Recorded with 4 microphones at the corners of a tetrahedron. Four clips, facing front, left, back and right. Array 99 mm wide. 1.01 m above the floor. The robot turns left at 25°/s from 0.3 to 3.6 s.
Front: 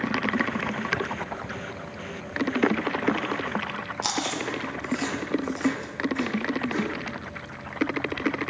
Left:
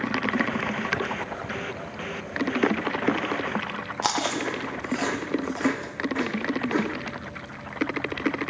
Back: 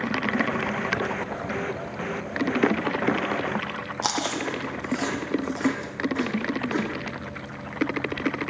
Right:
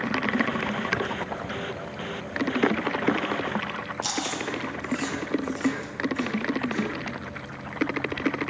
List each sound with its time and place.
4.0 s chewing: 115° left, 1.1 m